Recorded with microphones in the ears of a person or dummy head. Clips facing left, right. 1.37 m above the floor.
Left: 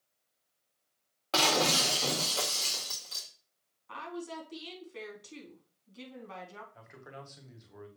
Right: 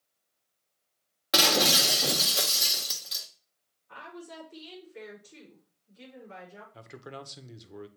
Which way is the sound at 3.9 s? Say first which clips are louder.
Left 4 dB; 85° left.